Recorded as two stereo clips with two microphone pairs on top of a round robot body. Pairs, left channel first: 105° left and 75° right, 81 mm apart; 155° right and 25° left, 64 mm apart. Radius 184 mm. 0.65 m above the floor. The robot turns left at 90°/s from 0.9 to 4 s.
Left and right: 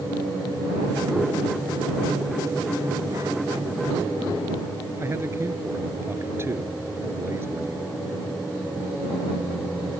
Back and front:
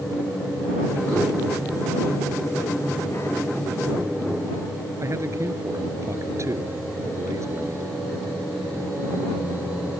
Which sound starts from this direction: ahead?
A man speaking, at 5.0 s.